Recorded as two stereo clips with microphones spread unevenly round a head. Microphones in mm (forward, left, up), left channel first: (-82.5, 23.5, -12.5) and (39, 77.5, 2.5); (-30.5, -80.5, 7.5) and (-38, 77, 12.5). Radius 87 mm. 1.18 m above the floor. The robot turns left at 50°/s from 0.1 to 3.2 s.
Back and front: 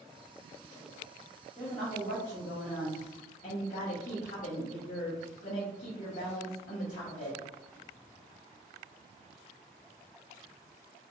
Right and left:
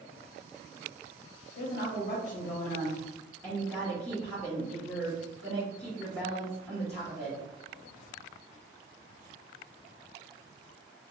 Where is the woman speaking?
90° right, 1.0 m; by 7.4 s 170° right, 1.0 m.